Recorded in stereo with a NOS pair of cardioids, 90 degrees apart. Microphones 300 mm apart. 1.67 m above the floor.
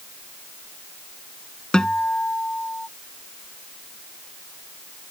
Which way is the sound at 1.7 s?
5° left.